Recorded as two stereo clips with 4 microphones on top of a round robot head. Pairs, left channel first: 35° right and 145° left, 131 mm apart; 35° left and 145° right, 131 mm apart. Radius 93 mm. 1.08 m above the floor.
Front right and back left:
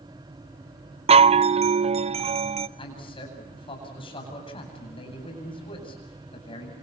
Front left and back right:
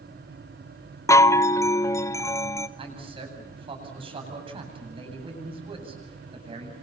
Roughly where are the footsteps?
No footsteps in this recording.